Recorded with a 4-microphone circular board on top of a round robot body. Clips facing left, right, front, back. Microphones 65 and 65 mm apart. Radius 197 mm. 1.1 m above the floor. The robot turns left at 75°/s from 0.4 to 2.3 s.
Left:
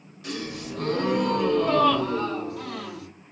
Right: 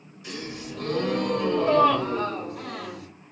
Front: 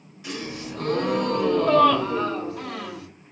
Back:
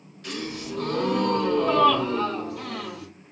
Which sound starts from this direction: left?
A gasp, at 0.2 s.